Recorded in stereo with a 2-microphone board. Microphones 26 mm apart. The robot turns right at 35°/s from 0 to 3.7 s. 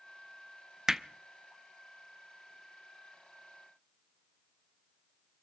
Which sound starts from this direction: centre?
Hammering, at 0.9 s.